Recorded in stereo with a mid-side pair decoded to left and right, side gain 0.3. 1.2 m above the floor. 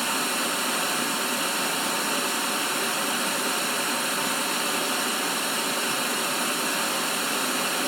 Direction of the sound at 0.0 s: 10° right.